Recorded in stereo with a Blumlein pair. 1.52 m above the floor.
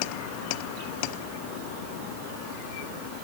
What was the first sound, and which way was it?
Only background noise.